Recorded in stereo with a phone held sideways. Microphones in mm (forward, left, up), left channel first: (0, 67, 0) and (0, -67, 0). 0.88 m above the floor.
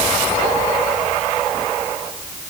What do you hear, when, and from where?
Only background noise.